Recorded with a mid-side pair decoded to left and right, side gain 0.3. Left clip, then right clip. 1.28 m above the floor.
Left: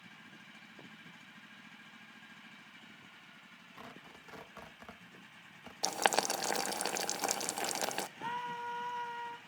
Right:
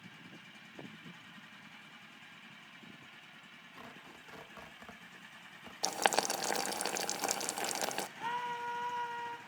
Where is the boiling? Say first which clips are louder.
Even; 20° left, 0.6 m.